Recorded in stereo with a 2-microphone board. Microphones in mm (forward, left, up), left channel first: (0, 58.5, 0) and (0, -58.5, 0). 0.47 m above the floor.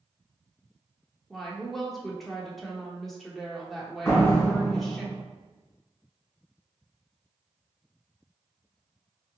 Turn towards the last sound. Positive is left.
turn(degrees=20)  # may be behind; listen again after turning